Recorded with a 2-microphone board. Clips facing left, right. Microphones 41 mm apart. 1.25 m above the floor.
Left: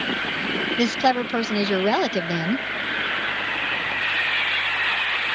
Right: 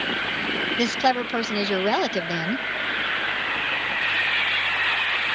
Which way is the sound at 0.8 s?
Centre (ahead or behind).